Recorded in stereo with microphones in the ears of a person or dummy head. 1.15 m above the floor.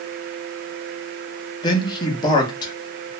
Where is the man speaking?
25° left (ahead or behind), 1.1 m.